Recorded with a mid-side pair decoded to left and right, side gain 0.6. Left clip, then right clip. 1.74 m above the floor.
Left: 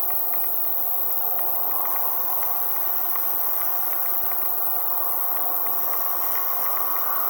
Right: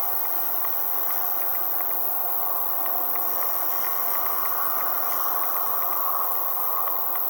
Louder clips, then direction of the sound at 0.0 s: Right 2 dB; 10° left.